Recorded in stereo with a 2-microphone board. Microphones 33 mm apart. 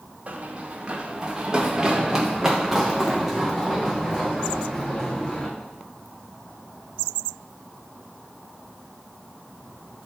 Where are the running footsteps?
35° right (ahead or behind), 2 m; by 5.5 s 20° left (ahead or behind), 3.5 m.